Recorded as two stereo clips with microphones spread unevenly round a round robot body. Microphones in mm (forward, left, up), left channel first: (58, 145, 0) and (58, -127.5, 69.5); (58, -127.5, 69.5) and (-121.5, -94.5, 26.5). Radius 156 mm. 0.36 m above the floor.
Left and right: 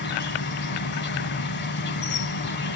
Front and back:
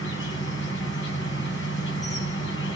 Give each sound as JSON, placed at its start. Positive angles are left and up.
{"t": 0.0, "sound": "an insect", "azimuth_deg": 40, "distance_m": 1.1}